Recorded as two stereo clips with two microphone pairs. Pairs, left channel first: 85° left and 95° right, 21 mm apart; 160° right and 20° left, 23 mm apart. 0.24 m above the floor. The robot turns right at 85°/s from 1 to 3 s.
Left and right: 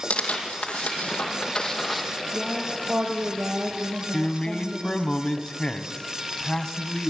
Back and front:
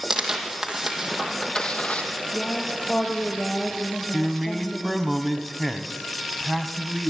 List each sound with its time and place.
0.1 s tearing paper: 95° left, 3 m; by 2.0 s 175° right, 3 m
2.3 s a woman speaking: 140° right, 5.5 m; by 5.1 s 80° right, 5.5 m
4.1 s a man speaking: 105° left, 1.5 m